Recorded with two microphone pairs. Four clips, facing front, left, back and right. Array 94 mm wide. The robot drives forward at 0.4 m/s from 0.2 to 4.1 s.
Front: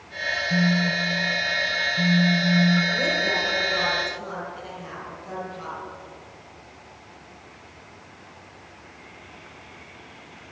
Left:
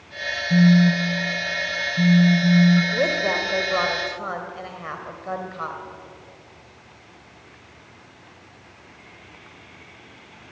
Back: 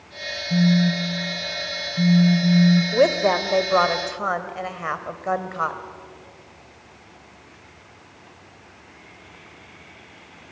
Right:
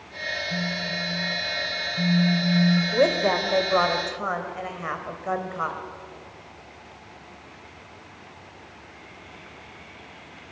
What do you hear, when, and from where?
0.5 s a phone buzzing: 110° left, 0.8 m; by 2.8 s 150° left, 1.4 m
2.9 s a woman speaking: 165° right, 2 m; by 5.8 s 170° right, 2.5 m